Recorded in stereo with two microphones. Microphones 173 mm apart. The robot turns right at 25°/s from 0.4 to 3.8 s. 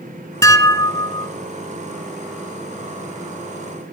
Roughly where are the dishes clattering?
Centre.